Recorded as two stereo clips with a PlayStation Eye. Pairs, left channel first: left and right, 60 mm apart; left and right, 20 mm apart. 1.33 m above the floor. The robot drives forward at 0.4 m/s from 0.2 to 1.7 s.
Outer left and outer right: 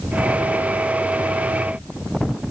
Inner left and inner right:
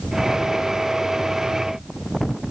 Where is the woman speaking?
No woman speaking in this recording.